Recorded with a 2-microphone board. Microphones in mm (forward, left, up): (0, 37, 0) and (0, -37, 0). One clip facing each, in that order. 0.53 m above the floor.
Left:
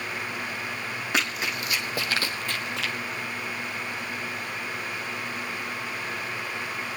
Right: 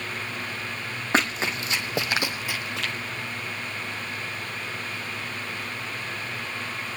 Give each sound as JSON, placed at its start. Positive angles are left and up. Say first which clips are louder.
{"t": 1.1, "sound": "running footsteps", "louder": "right 5 dB", "side_deg": -35, "distance_m": 1.6}